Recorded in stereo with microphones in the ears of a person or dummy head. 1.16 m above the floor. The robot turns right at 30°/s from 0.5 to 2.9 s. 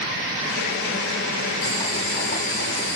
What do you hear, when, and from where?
1.6 s boiling: 25° left, 3.5 m; by 3.0 s 60° left, 3.5 m